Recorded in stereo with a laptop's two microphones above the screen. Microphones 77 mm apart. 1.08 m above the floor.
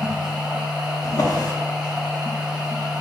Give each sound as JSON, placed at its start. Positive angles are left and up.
{"t": 0.0, "sound": "a machine running", "side_deg": -10, "distance_m": 1.3}
{"t": 1.0, "sound": "a drawer", "side_deg": 50, "distance_m": 0.9}